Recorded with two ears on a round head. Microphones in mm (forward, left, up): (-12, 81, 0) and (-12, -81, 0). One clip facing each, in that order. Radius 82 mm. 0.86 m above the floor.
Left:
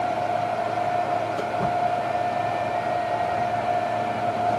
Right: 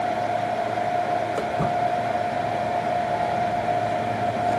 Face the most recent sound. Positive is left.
turn(degrees=-40)  # may be behind; listen again after turning